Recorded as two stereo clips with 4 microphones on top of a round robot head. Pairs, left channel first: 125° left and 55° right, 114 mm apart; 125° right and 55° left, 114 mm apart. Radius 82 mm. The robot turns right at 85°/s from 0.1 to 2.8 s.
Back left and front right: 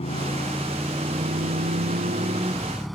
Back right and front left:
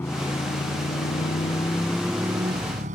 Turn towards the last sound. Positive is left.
turn(degrees=35)